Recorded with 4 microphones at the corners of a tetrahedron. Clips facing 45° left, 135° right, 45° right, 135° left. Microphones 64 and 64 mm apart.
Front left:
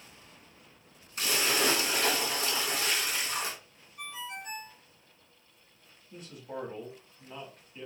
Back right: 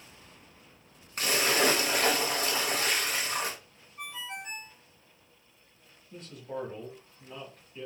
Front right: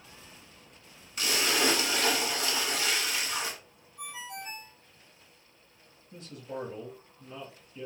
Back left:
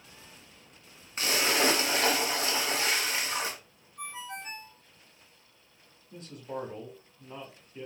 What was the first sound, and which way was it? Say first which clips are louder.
A splash: back right 3 dB, back left 1 dB; 170° right.